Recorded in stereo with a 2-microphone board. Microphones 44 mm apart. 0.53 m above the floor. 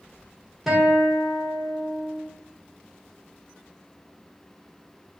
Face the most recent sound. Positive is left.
turn(degrees=0)  # may be behind; listen again after turning